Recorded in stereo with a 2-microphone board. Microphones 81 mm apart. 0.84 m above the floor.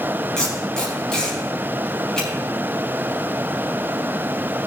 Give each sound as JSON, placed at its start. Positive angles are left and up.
{"t": 0.4, "sound": "tape being pulled", "side_deg": 10, "distance_m": 4.5}